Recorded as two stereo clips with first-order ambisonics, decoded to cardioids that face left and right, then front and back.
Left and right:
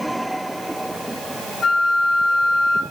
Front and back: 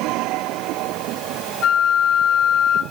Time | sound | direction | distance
1.6 | a flute | 35° left | 0.6 m